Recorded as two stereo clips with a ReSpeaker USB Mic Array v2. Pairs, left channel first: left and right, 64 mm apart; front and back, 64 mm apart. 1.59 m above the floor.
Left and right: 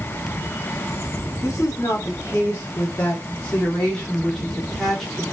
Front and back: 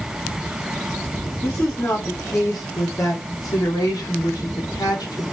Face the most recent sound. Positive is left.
turn(degrees=0)